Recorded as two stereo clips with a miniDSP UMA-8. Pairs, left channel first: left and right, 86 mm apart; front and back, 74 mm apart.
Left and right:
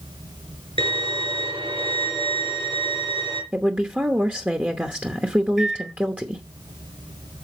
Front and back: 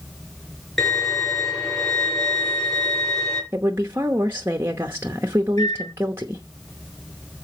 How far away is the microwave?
About 1.1 m.